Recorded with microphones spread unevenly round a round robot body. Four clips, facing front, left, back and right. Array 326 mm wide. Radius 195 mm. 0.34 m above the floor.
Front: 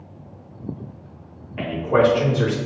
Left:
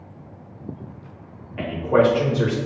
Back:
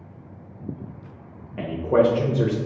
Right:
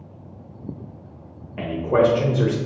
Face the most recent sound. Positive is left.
turn(degrees=-155)